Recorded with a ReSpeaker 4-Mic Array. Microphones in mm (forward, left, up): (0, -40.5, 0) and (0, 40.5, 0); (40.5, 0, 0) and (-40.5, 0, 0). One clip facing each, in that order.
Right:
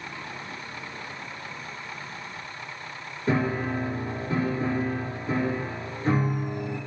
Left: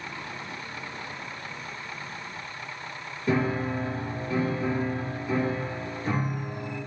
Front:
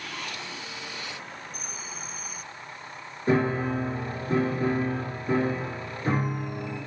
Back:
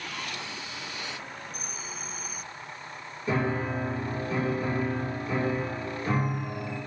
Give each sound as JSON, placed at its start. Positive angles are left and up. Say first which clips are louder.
{"t": 3.3, "sound": "a piano", "louder": "even, front 4 dB", "azimuth_deg": -40, "distance_m": 1.9}